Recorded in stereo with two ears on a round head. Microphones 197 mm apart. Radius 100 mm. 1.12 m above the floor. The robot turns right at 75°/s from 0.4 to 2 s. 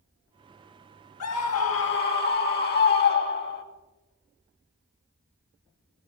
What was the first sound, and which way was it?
A scream, 70° left.